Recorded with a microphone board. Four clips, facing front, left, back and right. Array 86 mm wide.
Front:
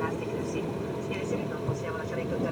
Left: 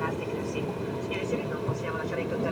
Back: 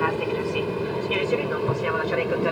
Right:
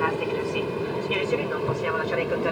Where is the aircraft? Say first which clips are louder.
Right 6 dB, back 7 dB; 145° right.